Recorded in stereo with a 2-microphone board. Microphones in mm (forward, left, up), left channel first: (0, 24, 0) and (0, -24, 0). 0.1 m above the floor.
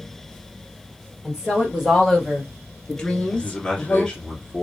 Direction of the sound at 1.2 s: 15° right (ahead or behind).